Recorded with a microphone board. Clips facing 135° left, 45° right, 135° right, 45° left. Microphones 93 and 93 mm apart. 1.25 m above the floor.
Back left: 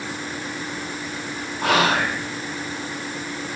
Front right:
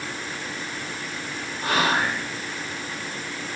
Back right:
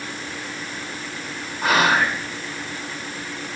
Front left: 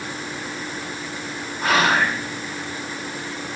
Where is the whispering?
140° left, 0.5 m.